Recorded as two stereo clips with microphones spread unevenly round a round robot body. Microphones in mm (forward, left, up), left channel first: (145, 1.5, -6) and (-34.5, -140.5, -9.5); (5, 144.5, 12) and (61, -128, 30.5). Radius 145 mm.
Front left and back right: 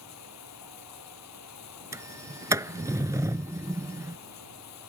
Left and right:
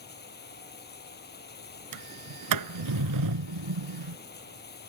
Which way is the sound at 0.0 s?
45° left.